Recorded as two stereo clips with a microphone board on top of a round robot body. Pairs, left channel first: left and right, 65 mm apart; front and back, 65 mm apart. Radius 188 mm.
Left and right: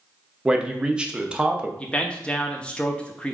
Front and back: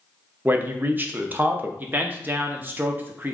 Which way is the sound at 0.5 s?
150° right.